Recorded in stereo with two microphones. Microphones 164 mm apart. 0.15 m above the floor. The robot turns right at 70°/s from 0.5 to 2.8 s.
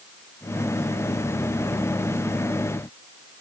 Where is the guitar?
I don't hear a guitar.